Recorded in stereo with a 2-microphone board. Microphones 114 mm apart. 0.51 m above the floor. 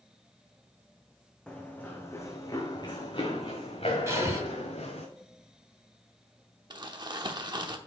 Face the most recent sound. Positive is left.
turn(degrees=-40)  # may be behind; listen again after turning